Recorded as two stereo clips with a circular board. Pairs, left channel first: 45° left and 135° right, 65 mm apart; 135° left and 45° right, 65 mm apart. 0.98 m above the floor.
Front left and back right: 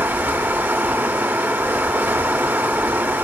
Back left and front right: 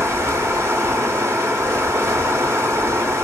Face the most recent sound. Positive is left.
turn(degrees=-80)